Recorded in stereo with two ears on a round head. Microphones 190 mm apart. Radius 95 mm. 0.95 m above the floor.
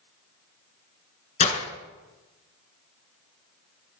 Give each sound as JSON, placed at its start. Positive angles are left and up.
{"t": 1.4, "sound": "breaking glass", "side_deg": 35, "distance_m": 2.5}